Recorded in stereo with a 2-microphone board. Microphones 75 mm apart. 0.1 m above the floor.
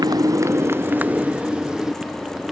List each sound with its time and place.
0.0 s a motorcycle: 60° right (ahead or behind); by 2.5 s centre (ahead or behind)